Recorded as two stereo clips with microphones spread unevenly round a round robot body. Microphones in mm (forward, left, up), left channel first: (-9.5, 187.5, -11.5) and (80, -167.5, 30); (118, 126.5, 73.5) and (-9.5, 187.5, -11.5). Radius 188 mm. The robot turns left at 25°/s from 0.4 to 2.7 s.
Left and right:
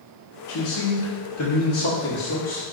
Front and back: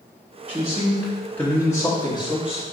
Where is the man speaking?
105° left, 1.2 m; by 2.6 s 50° left, 1.2 m.